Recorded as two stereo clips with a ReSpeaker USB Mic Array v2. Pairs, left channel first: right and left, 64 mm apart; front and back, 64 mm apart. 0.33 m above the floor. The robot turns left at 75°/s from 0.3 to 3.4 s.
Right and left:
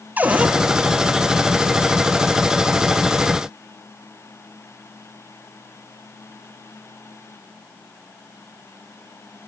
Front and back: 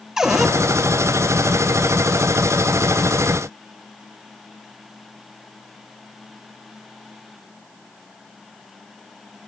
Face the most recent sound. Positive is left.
turn(degrees=-125)